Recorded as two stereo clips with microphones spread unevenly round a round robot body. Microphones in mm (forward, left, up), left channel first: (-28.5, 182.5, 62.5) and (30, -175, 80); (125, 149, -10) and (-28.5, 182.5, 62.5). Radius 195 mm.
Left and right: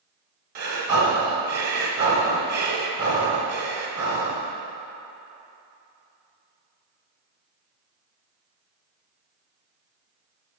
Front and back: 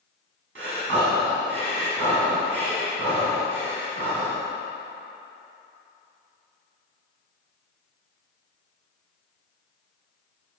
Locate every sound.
0.6 s breathing: 135° right, 1.0 m